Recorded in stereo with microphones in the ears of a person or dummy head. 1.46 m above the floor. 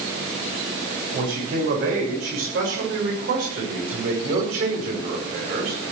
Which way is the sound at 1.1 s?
60° right (ahead or behind).